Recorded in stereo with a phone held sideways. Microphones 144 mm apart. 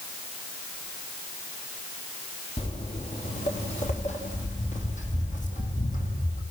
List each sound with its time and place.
2.6 s footsteps: 45° left (ahead or behind), 2.5 m; by 6.4 s 65° left (ahead or behind), 4.5 m